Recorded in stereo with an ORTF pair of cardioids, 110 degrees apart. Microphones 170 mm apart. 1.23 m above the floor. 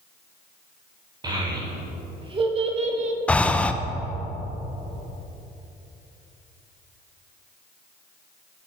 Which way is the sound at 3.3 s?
5° left.